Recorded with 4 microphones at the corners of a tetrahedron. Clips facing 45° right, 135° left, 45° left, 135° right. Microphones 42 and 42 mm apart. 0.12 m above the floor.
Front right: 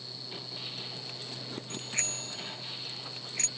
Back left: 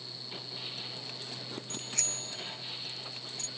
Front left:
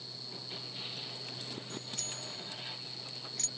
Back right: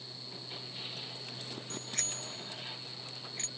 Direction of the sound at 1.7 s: 110° right.